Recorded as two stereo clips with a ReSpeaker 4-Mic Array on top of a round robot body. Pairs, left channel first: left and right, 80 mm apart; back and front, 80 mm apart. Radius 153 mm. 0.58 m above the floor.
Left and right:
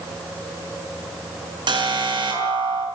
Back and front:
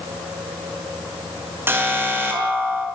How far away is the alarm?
About 6 m.